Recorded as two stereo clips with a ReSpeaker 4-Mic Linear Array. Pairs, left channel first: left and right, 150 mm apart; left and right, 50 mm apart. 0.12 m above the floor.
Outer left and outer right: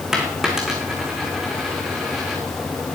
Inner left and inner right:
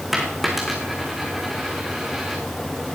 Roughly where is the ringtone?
I don't hear a ringtone.